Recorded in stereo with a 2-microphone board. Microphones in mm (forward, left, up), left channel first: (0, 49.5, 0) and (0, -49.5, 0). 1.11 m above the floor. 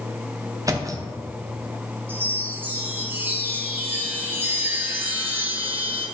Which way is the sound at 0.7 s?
35° right (ahead or behind).